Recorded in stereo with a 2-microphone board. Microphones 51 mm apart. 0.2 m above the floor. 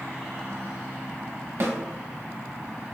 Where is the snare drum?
60° right (ahead or behind), 1.1 m.